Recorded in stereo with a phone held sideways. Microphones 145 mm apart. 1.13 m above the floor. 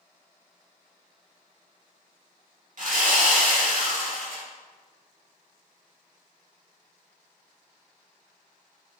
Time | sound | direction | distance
2.8 | sawing | 60° right (ahead or behind) | 1.4 m